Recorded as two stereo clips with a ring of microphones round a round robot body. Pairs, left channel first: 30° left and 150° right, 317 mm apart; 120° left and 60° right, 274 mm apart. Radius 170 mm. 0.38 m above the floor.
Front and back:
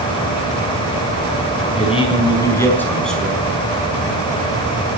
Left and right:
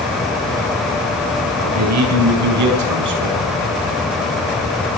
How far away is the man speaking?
About 4.5 m.